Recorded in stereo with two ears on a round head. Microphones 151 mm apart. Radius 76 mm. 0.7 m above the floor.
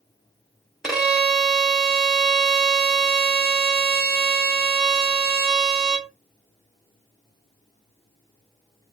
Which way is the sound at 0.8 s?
5° right (ahead or behind).